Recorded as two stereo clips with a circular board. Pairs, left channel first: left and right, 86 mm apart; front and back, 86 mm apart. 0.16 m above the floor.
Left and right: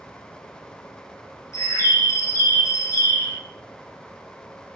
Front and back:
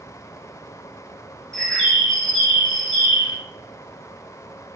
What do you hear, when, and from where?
1.5 s a bird: 80° left, 1.0 m